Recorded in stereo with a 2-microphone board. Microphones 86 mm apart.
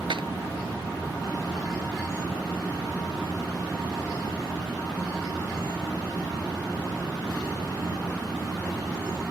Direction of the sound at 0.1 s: 80° right.